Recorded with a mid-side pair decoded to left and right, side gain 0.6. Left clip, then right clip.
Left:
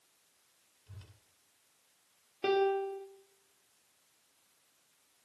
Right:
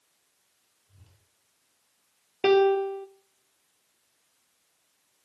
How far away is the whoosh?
About 9.5 m.